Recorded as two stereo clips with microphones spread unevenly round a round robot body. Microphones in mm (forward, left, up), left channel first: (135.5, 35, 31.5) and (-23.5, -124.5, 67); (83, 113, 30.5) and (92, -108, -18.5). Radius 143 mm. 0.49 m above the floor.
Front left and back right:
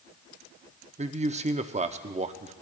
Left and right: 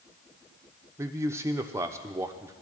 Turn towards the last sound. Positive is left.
turn(degrees=-100)